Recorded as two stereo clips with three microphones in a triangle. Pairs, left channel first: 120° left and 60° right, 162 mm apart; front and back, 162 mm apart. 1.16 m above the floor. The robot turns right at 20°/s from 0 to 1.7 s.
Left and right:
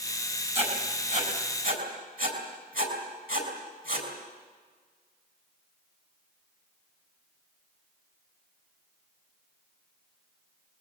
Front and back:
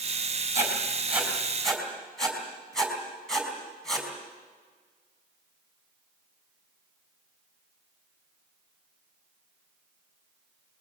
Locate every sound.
0.6 s writing: 110° right, 4 m; by 4.1 s 85° right, 4 m